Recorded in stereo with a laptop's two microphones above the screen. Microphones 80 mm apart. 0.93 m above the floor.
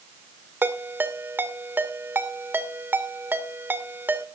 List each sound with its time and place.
0.6 s a ringtone: 25° right (ahead or behind), 2 m